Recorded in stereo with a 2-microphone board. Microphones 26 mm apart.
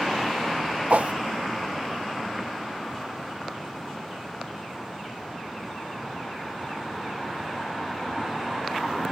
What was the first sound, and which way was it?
A whoosh, 70° right (ahead or behind).